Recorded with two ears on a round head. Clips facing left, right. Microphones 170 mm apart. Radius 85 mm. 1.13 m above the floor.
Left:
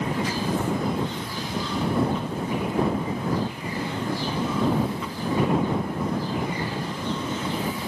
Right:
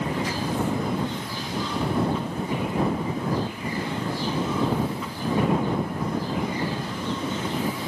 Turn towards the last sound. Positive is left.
No sound to turn to.